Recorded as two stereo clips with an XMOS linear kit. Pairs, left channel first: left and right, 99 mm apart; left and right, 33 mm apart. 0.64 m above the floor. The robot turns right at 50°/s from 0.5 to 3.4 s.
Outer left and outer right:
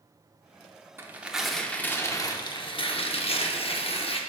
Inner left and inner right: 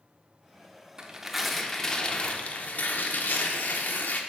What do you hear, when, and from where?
1.0 s tearing paper: 25° right, 0.7 m; by 4.2 s 95° left, 0.7 m